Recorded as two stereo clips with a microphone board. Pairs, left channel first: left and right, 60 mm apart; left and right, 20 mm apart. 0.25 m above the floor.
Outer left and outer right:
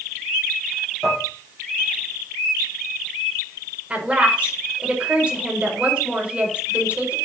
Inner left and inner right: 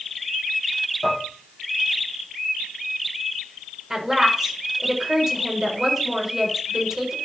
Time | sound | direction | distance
1.0 | dishes clattering | 5° right (ahead or behind) | 8 m
3.9 | a woman speaking | 20° right (ahead or behind) | 5.5 m